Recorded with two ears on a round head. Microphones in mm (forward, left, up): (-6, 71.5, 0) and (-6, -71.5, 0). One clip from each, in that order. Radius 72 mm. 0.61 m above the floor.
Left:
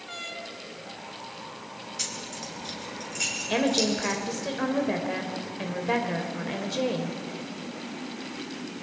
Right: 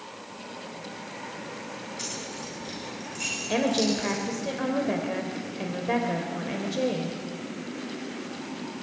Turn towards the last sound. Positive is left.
turn(degrees=20)  # may be behind; listen again after turning